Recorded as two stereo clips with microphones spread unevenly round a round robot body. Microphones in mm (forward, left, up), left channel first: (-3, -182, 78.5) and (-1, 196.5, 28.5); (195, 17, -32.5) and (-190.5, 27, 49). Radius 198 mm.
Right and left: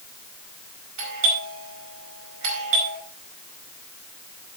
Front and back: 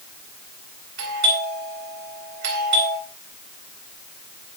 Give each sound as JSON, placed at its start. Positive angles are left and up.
{"t": 1.0, "sound": "a doorbell", "azimuth_deg": 125, "distance_m": 4.5}